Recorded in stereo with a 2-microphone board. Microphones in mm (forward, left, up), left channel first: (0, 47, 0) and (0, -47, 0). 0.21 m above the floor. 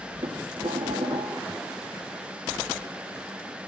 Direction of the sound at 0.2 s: 45° right (ahead or behind).